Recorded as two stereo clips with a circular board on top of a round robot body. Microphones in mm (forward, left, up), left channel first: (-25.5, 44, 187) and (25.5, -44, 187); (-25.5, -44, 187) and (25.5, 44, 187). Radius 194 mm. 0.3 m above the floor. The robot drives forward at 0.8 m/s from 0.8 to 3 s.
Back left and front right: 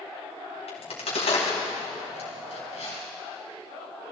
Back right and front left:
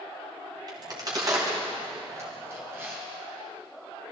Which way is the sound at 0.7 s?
105° left.